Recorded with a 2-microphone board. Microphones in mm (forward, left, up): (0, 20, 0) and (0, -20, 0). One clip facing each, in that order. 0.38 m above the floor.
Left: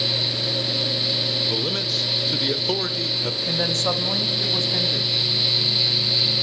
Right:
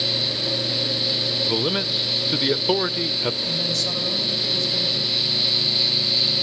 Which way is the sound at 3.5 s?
40° left (ahead or behind).